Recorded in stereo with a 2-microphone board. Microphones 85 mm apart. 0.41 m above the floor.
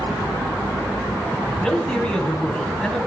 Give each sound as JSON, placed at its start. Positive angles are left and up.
{"t": 1.6, "sound": "a man speaking", "side_deg": 10, "distance_m": 2.5}